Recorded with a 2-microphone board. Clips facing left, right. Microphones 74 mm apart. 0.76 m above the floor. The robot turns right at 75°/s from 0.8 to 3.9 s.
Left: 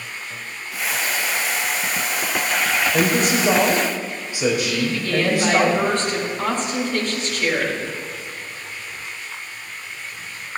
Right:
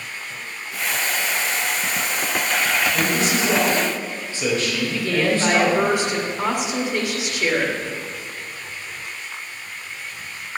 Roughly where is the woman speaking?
Centre.